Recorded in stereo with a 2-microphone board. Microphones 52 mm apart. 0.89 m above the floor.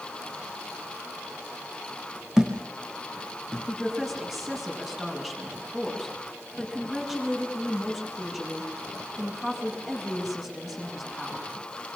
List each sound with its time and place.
2.4 s a thud: 10° right (ahead or behind), 5.5 m
3.7 s a woman speaking: 5° right (ahead or behind), 7.5 m